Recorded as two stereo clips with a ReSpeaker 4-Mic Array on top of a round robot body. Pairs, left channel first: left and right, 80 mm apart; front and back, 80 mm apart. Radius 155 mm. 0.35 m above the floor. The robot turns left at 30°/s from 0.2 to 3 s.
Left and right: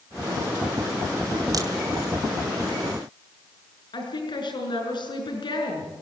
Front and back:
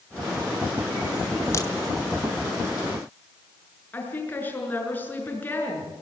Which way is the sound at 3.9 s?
70° left.